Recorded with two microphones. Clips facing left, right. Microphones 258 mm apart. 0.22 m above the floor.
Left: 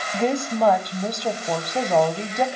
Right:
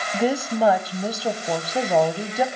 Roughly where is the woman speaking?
Centre.